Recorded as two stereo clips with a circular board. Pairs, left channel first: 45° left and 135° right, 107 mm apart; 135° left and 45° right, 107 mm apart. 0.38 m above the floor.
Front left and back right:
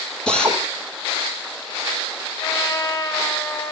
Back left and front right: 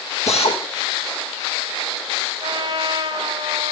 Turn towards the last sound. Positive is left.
turn(degrees=-10)